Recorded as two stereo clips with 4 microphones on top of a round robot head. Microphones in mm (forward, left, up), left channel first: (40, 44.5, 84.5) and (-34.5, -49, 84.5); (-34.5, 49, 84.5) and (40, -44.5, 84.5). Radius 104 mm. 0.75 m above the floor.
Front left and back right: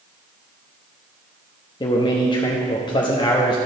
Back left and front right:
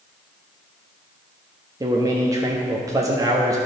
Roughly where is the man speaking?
Ahead.